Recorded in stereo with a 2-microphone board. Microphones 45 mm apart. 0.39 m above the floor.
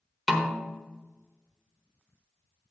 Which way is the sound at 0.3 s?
5° right (ahead or behind).